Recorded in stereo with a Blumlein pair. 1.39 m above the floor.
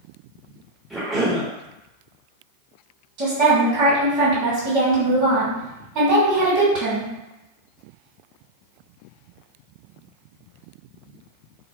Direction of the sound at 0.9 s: 5° right.